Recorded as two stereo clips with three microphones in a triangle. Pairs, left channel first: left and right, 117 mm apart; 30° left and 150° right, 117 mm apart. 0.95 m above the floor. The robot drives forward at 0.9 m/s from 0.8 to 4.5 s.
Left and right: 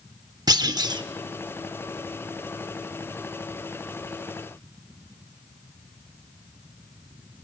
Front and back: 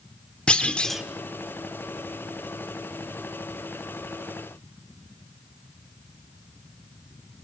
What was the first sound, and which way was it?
A clunk, 50° right.